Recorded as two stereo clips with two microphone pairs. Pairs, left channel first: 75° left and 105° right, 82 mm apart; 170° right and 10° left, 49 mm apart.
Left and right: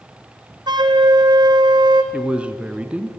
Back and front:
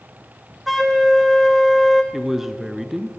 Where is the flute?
75° right, 1.6 m.